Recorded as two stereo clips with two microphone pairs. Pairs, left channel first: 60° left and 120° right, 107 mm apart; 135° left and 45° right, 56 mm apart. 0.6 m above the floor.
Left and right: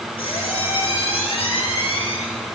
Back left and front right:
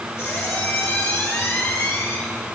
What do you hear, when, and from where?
0.2 s a squeak: 95° left, 2.5 m